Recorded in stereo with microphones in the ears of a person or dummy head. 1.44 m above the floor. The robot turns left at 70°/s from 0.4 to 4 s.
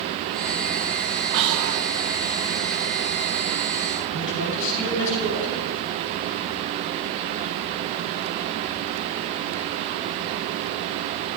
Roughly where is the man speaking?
Left.